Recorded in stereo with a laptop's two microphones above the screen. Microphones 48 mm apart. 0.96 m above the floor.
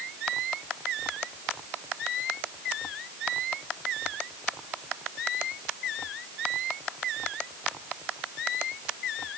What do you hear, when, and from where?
Only background noise.